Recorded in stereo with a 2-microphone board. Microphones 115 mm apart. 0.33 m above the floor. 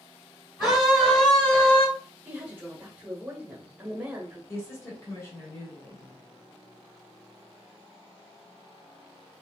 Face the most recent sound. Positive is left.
turn(degrees=25)  # may be behind; listen again after turning